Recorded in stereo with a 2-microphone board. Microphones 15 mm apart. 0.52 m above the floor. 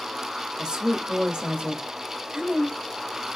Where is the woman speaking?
70° right (ahead or behind), 1.9 m.